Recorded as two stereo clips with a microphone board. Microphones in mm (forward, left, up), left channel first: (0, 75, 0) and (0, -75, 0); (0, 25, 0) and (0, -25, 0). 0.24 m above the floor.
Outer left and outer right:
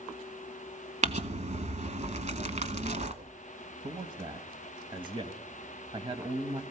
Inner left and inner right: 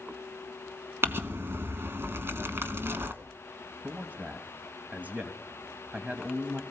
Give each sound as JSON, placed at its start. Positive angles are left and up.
{"t": 1.0, "sound": "crumpling", "side_deg": -55, "distance_m": 1.0}
{"t": 3.8, "sound": "a man speaking", "side_deg": -35, "distance_m": 1.1}